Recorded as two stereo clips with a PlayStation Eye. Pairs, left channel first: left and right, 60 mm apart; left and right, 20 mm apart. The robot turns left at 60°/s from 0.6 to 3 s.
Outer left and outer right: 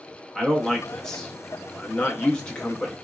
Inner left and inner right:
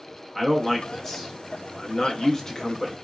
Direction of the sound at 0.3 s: 5° left (ahead or behind).